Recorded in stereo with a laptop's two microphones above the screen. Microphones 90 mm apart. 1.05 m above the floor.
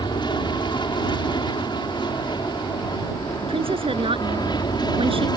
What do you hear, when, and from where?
0.0 s an aircraft: 55° left (ahead or behind); by 5.4 s 50° left (ahead or behind)
3.4 s a woman speaking: 90° right